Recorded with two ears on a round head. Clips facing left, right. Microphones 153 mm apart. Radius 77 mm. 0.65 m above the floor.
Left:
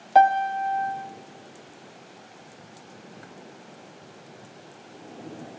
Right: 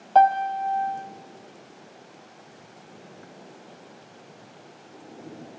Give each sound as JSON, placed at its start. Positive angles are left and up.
{"t": 0.1, "sound": "a piano", "side_deg": 15, "distance_m": 0.7}